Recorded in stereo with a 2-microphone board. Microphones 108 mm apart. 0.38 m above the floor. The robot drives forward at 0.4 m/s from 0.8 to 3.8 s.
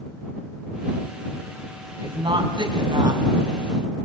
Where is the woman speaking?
50° right (ahead or behind), 2.5 m; by 3.2 s 45° right (ahead or behind), 3 m.